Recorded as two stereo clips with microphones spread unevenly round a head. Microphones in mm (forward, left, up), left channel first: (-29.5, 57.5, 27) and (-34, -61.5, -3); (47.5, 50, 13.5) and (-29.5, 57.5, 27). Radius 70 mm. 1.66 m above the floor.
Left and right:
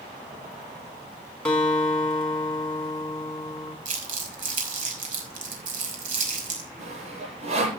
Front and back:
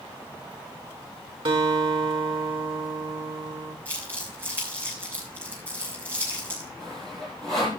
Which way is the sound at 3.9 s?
115° right.